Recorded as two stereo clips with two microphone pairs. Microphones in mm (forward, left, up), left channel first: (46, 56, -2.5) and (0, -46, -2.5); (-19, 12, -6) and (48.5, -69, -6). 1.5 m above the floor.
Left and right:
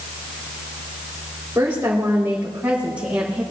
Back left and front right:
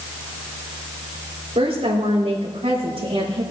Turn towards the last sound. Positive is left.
turn(degrees=-35)